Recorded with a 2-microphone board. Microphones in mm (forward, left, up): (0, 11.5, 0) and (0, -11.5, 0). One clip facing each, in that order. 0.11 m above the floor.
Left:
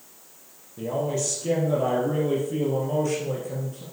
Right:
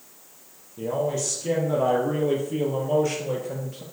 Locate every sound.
0.8 s a man speaking: 5° left (ahead or behind), 3 m; by 3.8 s 30° right (ahead or behind), 3 m